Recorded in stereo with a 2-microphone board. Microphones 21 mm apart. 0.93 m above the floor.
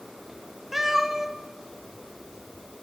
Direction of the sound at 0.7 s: 15° right (ahead or behind).